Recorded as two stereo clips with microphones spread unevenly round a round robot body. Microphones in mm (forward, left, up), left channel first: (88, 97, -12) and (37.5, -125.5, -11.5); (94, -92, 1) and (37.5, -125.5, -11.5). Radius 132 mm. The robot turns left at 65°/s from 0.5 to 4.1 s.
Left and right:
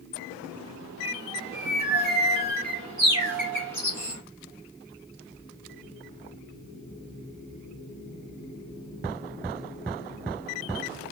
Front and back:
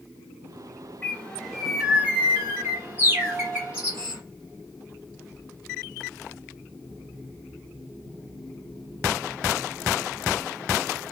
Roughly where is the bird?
Ahead right.